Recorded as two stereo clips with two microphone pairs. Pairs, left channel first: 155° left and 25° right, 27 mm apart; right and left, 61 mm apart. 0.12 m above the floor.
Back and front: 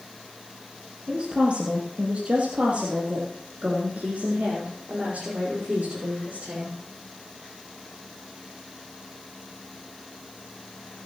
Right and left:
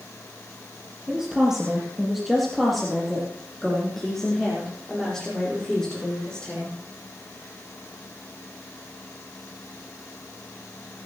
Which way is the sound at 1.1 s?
15° left.